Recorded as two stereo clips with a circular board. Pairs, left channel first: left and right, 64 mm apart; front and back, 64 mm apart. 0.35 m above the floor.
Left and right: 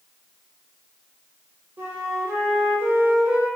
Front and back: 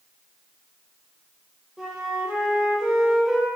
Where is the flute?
105° right, 0.6 m.